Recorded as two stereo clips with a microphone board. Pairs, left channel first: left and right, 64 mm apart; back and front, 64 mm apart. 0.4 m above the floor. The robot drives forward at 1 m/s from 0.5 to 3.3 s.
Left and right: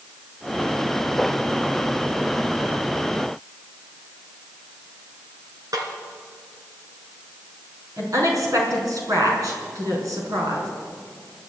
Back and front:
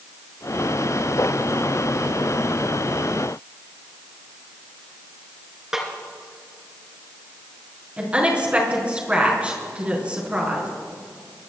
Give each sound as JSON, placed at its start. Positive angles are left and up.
{"t": 5.7, "sound": "a snare drum", "azimuth_deg": -80, "distance_m": 3.0}
{"t": 8.0, "sound": "a woman speaking", "azimuth_deg": -70, "distance_m": 5.0}